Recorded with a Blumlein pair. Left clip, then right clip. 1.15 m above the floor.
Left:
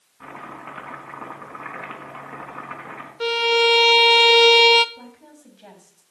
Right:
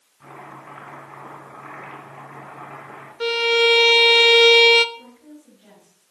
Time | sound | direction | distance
0.2 | chopping | 65° left | 4 m
3.2 | a violin | straight ahead | 0.7 m
5.0 | a woman speaking | 60° left | 6.5 m